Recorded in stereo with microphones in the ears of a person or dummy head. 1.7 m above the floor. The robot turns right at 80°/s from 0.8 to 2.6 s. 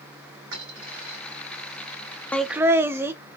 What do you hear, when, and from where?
0.5 s a dropped coin: 60° right (ahead or behind), 3 m; by 1.2 s 55° right (ahead or behind), 3 m
2.3 s laughter: 5° left (ahead or behind), 0.5 m; by 3.1 s 20° right (ahead or behind), 0.5 m